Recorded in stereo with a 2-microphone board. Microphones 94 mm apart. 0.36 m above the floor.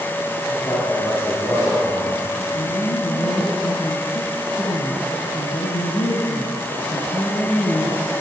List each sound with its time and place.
0.5 s a man speaking: 45° left (ahead or behind), 6 m; by 2.4 s 35° left (ahead or behind), 6 m
2.5 s a woman speaking: 70° left (ahead or behind), 2.5 m